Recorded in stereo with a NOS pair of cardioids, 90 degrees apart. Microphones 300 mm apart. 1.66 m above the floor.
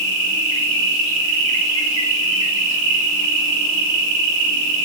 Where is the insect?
70° right, 3.5 m.